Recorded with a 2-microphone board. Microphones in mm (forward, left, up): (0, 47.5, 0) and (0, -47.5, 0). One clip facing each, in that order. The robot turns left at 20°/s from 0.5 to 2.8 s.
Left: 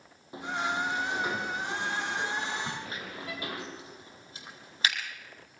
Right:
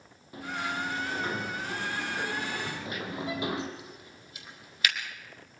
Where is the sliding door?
25° left, 3 m; by 3.7 s 20° right, 3 m.